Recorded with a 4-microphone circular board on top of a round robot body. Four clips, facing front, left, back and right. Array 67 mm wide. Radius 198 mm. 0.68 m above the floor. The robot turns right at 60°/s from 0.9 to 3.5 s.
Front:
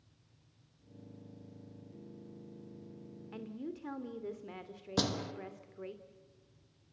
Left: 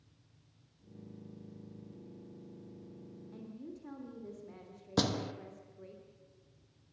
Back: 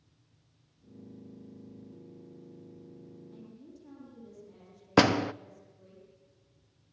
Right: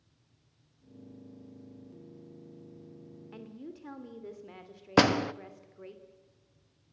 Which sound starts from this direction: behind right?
A door slam, at 5.0 s.